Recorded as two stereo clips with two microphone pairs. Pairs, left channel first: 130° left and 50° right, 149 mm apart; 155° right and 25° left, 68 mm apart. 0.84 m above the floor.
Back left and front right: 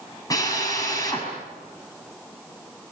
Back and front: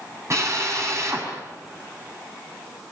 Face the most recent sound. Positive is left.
turn(degrees=65)